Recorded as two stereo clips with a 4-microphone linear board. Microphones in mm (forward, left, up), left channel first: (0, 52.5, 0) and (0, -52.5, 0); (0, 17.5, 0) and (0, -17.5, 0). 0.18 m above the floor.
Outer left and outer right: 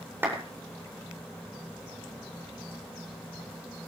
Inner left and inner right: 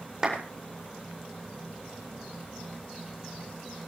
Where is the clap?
20° right (ahead or behind), 8.5 m.